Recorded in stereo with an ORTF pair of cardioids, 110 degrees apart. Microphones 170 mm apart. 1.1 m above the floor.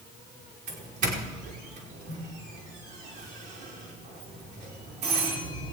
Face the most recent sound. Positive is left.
turn(degrees=-70)